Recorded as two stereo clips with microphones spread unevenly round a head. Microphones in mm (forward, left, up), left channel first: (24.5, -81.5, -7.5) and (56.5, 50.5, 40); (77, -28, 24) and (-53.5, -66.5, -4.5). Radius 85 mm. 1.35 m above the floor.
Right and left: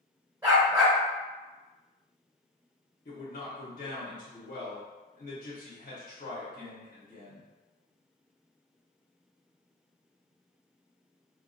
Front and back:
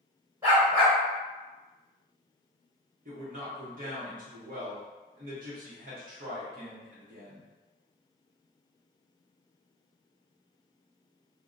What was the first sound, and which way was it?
A dog barking, 125° left.